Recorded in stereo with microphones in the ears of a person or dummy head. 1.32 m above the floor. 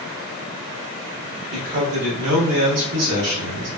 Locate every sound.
1.5 s a man speaking: 65° right (ahead or behind), 1.7 m; by 3.7 s 85° right, 2 m